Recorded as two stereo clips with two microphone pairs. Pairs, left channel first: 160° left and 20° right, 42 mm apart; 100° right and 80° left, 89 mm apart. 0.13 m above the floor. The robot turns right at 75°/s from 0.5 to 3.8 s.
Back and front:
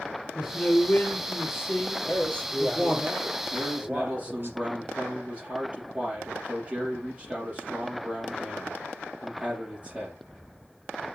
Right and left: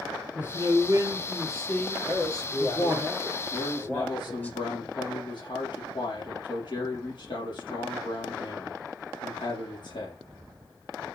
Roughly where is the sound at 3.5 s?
Right.